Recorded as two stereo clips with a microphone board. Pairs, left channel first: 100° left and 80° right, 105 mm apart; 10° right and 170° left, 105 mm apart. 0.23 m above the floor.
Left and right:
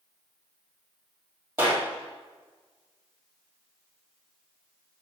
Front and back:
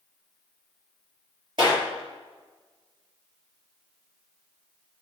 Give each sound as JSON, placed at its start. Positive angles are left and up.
{"t": 1.6, "sound": "a clap", "azimuth_deg": -145, "distance_m": 4.0}